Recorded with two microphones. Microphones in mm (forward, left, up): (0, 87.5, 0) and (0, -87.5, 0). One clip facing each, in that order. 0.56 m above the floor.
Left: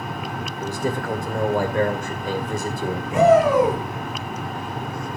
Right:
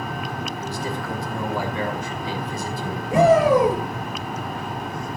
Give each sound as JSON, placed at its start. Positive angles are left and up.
{"t": 0.6, "sound": "a man speaking", "side_deg": 50, "distance_m": 2.0}
{"t": 3.1, "sound": "a shout", "side_deg": -35, "distance_m": 8.0}